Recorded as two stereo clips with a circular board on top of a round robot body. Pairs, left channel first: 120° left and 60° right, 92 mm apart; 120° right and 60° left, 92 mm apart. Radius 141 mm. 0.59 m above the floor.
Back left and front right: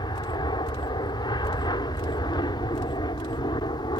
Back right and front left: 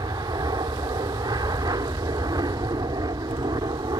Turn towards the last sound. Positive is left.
turn(degrees=95)